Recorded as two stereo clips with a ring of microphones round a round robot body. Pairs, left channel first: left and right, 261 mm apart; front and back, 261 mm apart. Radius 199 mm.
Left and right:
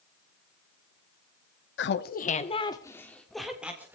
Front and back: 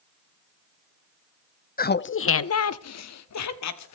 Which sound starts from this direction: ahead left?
Laughter, at 1.8 s.